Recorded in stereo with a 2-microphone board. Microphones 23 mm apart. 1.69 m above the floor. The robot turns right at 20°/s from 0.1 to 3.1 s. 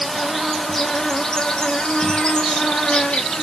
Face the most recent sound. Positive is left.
turn(degrees=65)